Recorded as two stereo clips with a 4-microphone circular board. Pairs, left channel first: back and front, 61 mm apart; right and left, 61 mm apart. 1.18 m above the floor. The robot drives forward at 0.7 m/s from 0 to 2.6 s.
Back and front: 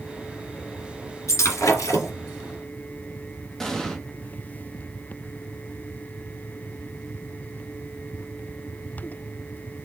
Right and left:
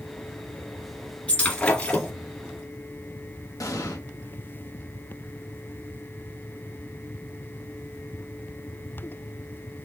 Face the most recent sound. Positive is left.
turn(degrees=-95)